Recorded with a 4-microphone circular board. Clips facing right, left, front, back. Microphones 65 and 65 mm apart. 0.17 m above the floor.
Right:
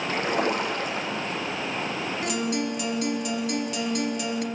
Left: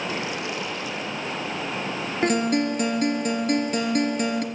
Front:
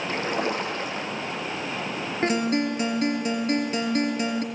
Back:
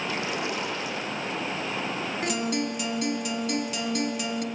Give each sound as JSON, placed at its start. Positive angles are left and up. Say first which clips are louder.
{"t": 0.1, "sound": "a splash", "louder": "right 4 dB, front 6 dB", "azimuth_deg": -45, "distance_m": 4.5}
{"t": 2.2, "sound": "a guitar", "louder": "left 8 dB, front 6 dB", "azimuth_deg": 50, "distance_m": 2.5}